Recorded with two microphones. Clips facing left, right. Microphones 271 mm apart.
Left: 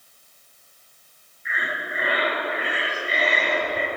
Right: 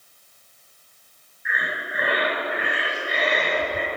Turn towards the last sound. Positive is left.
turn(degrees=-70)  # may be behind; listen again after turning